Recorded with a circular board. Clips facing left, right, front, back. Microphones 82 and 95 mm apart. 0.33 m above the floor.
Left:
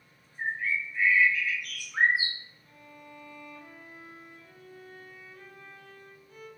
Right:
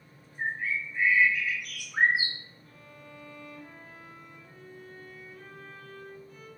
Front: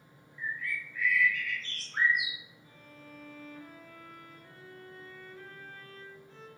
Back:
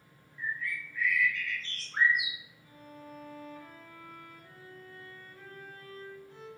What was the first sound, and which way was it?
A bird, 145° right.